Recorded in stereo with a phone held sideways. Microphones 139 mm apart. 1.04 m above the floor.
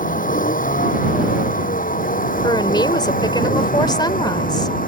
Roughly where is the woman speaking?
Left.